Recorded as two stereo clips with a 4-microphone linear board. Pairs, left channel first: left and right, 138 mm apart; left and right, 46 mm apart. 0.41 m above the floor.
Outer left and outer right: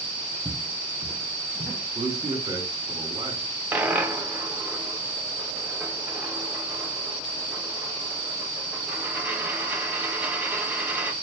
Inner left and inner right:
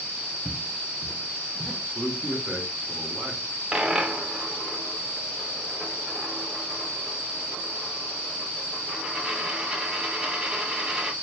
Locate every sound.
0.5 s footsteps: 15° left (ahead or behind), 0.5 m; by 1.8 s 10° left (ahead or behind), 1.5 m
1.9 s a man speaking: 25° right (ahead or behind), 1.2 m
3.7 s a dropped coin: 15° right (ahead or behind), 0.6 m